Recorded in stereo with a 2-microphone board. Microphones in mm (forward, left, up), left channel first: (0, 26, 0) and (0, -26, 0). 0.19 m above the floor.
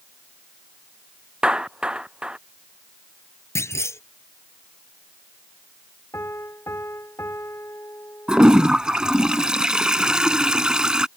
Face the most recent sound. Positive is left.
turn(degrees=-15)  # may be behind; listen again after turning